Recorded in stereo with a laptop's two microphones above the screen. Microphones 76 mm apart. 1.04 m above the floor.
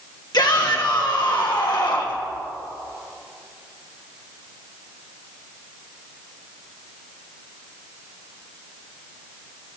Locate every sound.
0.3 s a shout: 70° left (ahead or behind), 1.6 m